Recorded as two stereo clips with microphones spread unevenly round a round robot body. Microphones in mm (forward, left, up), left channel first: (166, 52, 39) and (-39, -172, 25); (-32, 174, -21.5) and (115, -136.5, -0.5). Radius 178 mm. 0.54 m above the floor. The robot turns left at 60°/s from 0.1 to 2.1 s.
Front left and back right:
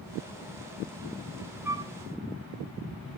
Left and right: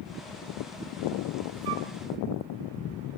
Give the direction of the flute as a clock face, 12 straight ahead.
2 o'clock.